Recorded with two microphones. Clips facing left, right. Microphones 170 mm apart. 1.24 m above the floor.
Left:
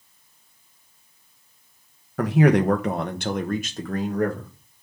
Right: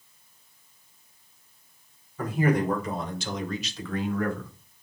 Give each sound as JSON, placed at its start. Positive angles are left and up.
{"t": 2.2, "sound": "a man speaking", "side_deg": 80, "distance_m": 1.0}